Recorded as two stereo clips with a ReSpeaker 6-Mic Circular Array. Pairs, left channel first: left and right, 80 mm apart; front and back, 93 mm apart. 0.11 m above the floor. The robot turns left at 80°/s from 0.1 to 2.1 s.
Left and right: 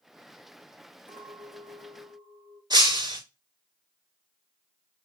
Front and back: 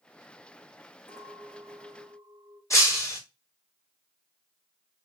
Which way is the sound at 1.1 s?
65° left.